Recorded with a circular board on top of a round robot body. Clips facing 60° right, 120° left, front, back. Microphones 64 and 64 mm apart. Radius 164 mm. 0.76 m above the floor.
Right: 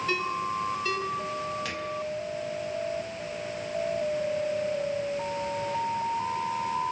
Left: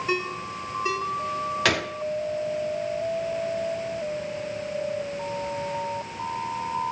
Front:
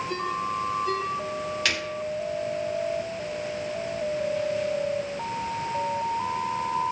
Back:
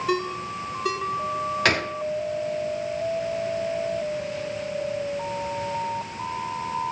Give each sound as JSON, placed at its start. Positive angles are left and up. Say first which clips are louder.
{"t": 0.1, "sound": "a ringtone", "louder": "even, back 4 dB", "azimuth_deg": -170, "distance_m": 4.0}
{"t": 1.6, "sound": "a gunshot", "louder": "left 9 dB, back 9 dB", "azimuth_deg": 130, "distance_m": 0.8}